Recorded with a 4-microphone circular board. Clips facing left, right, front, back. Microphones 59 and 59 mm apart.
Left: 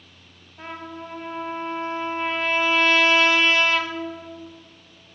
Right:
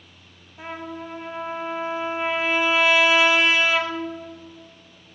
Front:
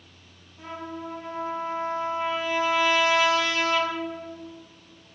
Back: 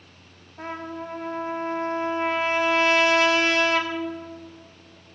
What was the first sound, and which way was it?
A trumpet, 170° right.